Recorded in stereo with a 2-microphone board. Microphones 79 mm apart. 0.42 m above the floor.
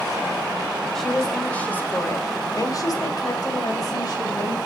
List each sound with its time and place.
0.9 s a woman speaking: 5° left (ahead or behind), 1.7 m; by 4.6 s 55° left (ahead or behind), 2.5 m